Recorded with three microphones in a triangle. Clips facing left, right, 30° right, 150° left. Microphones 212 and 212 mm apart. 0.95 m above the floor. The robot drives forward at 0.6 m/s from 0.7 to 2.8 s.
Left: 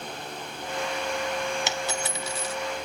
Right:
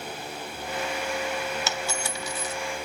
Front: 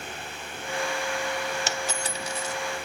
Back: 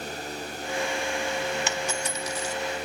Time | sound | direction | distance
1.7 | a dropped coin | 15° left | 1.0 m